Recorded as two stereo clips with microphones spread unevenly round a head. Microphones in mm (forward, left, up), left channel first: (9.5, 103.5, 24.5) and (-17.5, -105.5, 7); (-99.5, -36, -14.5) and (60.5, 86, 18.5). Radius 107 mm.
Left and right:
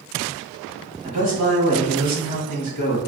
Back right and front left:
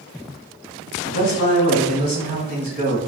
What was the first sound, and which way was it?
A man speaking, 145° right.